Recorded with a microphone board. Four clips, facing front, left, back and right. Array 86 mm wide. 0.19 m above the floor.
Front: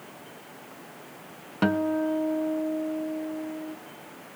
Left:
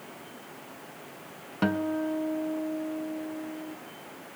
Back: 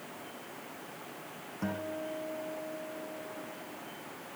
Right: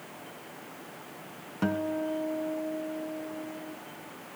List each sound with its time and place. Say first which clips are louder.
1.6 s a guitar: left 2 dB, front 13 dB; 15° left, 1.1 m